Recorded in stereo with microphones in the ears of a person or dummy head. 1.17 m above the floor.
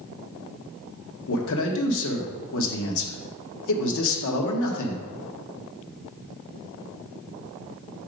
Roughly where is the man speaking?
Left.